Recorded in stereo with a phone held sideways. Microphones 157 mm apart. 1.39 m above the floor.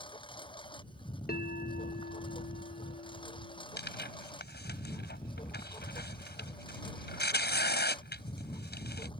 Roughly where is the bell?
Left.